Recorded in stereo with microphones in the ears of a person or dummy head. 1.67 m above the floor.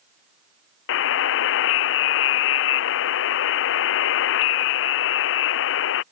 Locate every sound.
0.9 s a buzzer: 70° left (ahead or behind)